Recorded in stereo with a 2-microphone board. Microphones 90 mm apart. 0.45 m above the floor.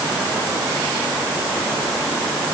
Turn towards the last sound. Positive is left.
No sound to turn to.